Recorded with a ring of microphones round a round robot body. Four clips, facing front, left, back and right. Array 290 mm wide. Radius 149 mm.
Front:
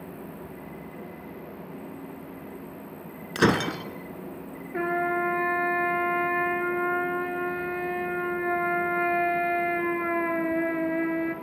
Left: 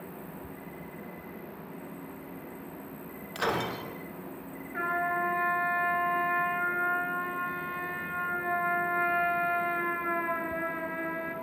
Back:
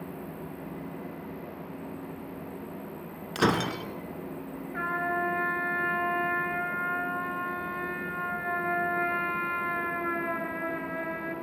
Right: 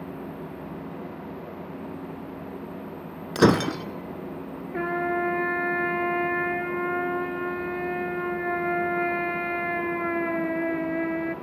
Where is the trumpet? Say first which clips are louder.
Right 4 dB, front 4 dB; 45° right, 2.5 m.